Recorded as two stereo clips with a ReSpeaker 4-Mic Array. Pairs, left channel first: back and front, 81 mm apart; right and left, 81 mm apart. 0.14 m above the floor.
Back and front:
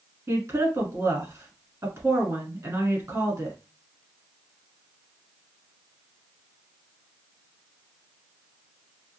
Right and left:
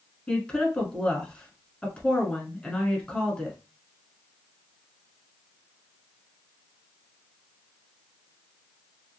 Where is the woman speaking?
20° right, 1.3 m.